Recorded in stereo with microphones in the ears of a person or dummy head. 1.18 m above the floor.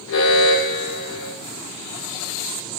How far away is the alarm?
About 5 m.